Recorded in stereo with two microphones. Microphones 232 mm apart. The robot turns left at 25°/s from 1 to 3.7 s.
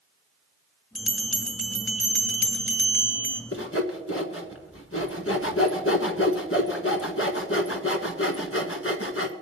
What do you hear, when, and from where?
0.9 s a bell: 115° left, 1.7 m; by 3.4 s 55° left, 1.7 m
3.5 s sawing: 70° left (ahead or behind), 1.5 m; by 9.3 s 75° left (ahead or behind), 1.5 m